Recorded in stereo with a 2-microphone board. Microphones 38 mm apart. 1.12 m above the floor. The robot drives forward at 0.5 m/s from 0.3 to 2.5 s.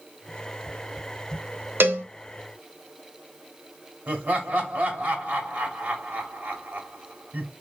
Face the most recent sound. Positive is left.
turn(degrees=-40)  # may be behind; listen again after turning